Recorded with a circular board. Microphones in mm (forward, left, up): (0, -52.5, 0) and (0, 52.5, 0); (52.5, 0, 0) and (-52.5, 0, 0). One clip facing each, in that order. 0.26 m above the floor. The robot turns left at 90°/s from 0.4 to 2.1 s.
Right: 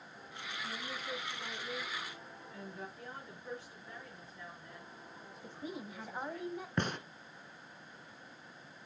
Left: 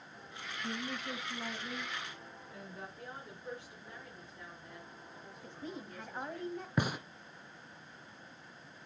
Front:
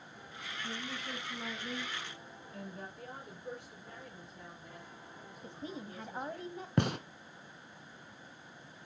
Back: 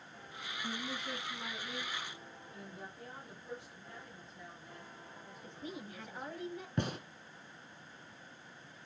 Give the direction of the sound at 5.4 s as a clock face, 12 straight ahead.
12 o'clock.